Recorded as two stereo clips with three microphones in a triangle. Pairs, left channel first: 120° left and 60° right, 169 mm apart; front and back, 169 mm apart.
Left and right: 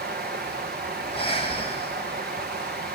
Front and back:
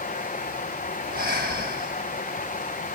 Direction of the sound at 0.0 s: 40° right.